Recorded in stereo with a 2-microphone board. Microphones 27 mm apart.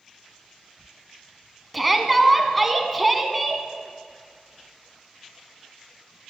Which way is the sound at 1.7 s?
Centre (ahead or behind).